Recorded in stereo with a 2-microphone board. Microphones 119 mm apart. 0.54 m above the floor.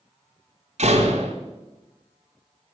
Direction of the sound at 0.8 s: 75° right (ahead or behind).